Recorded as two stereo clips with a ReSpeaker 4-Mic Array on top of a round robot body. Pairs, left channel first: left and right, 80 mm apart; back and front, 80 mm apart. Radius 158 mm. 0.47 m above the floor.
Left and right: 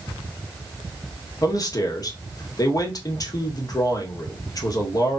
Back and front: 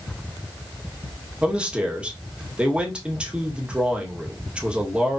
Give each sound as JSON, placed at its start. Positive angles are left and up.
{"t": 1.4, "sound": "a man speaking", "azimuth_deg": 75, "distance_m": 1.5}